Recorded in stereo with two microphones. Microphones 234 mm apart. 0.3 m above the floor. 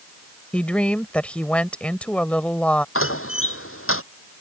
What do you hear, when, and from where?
0.5 s a woman speaking: 5° left (ahead or behind)
3.0 s a door slam: 65° left (ahead or behind)